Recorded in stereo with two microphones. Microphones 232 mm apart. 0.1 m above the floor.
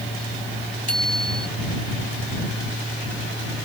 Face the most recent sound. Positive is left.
turn(degrees=-75)  # may be behind; listen again after turning